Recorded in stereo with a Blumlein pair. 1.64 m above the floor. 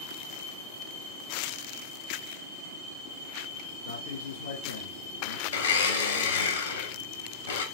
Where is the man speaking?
65° left, 1.6 m.